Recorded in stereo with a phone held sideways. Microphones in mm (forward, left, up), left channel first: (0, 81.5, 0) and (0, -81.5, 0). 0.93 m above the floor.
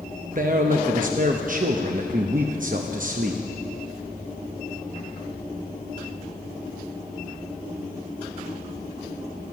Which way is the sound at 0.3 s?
55° right (ahead or behind).